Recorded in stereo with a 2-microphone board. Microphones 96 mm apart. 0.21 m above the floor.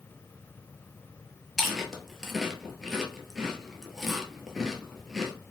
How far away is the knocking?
I don't hear knocking.